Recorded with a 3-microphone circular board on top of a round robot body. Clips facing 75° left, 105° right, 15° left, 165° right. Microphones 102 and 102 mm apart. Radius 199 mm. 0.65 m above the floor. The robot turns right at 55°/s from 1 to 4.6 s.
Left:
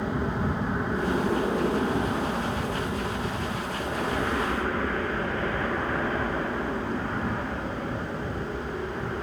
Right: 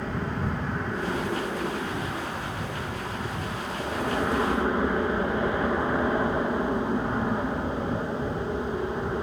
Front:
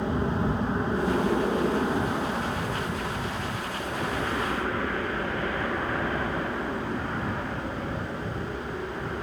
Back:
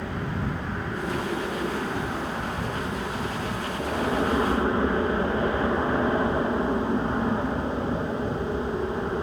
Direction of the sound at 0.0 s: 10° left.